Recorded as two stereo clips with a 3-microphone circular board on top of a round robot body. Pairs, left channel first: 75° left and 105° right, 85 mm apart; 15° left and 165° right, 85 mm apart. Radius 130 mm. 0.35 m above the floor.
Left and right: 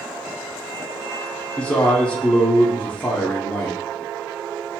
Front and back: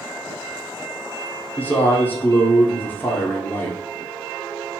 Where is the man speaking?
25° left, 0.8 m.